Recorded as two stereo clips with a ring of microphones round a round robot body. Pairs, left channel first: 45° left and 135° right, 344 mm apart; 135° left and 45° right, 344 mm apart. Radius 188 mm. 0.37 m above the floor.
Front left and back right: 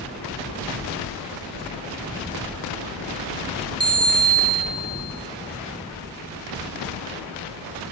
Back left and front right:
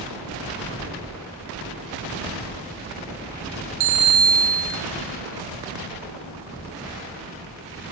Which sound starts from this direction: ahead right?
A bicycle bell, at 3.8 s.